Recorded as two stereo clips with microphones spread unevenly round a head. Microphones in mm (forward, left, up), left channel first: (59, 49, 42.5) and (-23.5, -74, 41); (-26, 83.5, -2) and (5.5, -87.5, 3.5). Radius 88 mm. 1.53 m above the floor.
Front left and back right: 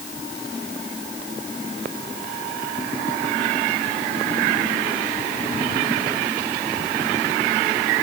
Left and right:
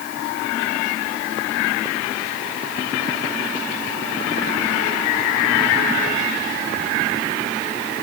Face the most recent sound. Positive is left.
No sound to turn to.